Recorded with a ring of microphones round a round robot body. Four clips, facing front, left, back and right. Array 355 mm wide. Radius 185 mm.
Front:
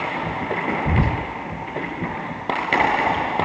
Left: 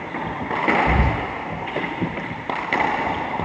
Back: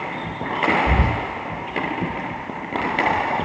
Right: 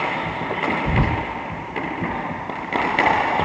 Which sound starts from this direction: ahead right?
Whispering, at 0.8 s.